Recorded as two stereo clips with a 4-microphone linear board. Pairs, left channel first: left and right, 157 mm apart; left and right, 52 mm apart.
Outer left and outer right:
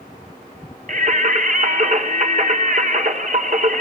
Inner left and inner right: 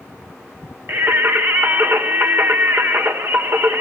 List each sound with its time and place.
0.9 s singing: 55° right (ahead or behind), 2 m